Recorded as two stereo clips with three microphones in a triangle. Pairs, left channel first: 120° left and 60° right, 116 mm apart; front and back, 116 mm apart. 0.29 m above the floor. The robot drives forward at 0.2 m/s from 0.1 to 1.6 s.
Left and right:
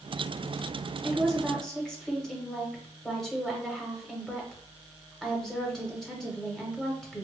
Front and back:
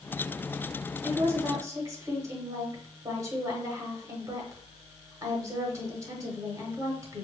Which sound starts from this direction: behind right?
A woman speaking, at 1.0 s.